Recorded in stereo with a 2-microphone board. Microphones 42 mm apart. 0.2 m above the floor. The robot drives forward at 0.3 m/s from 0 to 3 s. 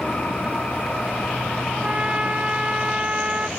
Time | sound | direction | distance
1.7 | a trumpet | 25° right (ahead or behind) | ?